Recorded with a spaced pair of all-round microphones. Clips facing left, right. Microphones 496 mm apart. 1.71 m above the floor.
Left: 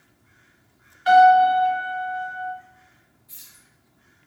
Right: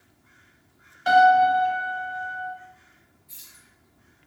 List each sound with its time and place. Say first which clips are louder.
1.1 s a piano: left 3 dB; 55° right (ahead or behind), 1.8 m
3.3 s keys jangling: even; 50° left (ahead or behind), 2.5 m